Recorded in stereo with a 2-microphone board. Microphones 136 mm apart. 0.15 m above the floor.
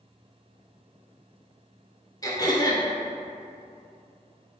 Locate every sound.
2.2 s throat clearing: 25° left (ahead or behind), 0.5 m